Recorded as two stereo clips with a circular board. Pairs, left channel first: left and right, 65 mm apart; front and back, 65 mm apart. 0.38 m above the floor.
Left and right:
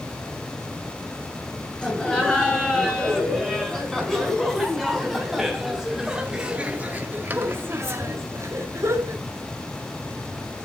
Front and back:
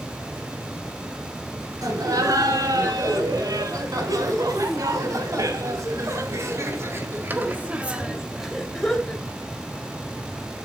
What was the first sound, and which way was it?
Laughter, 165° left.